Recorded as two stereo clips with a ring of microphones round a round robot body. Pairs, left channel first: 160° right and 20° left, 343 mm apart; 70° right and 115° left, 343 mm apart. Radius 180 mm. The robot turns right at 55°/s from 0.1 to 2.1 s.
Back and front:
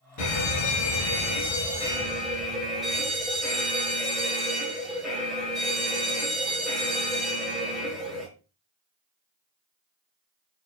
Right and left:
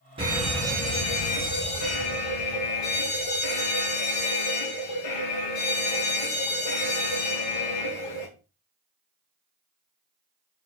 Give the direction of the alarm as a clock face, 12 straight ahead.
6 o'clock.